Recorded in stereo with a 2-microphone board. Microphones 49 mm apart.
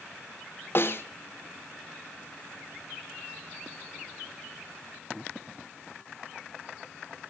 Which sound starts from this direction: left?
A snare drum, at 0.8 s.